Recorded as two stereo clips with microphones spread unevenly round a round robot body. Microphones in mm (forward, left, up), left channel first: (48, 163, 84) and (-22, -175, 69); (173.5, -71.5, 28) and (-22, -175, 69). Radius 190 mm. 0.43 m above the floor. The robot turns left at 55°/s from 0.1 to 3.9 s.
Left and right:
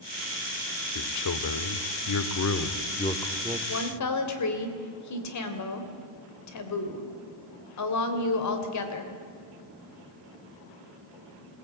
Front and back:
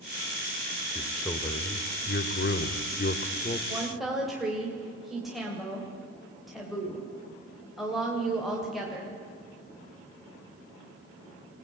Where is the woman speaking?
125° left, 2.5 m; by 9.2 s 115° left, 2.5 m.